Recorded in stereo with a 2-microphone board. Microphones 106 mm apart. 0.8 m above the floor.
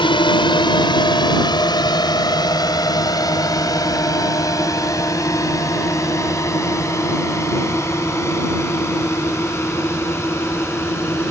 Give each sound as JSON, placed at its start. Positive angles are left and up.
{"t": 0.0, "sound": "a drone", "side_deg": 50}